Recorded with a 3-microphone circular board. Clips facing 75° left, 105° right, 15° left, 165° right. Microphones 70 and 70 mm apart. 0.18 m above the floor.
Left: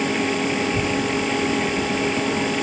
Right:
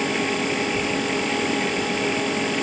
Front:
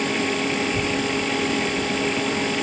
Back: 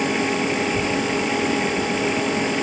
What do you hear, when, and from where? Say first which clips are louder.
0.6 s a child speaking: left 2 dB, back 2 dB; 90° left